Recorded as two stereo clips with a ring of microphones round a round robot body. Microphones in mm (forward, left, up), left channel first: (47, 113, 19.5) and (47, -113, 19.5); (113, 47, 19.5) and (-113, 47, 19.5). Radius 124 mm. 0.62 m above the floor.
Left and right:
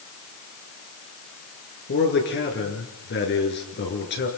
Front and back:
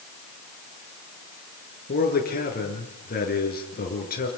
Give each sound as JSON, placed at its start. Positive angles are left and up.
{"t": 1.9, "sound": "a man speaking", "azimuth_deg": 50, "distance_m": 8.0}